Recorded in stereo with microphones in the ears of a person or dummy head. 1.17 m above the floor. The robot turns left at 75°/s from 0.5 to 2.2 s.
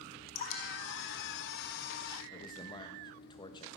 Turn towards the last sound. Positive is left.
turn(degrees=25)  # may be behind; listen again after turning